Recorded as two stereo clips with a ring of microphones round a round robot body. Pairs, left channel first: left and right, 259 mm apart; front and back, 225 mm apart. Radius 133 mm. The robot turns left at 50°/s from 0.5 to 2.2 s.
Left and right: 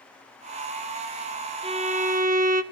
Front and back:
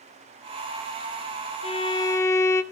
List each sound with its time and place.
1.6 s a violin: 40° right, 0.8 m; by 2.6 s 70° right, 0.8 m